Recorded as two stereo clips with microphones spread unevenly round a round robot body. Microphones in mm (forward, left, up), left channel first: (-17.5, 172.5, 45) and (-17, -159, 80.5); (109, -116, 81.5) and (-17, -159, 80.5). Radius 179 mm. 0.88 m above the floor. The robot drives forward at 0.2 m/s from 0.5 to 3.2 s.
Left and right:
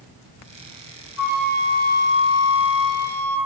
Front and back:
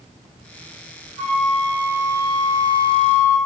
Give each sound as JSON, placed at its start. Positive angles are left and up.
{"t": 1.2, "sound": "a flute", "azimuth_deg": 85, "distance_m": 5.0}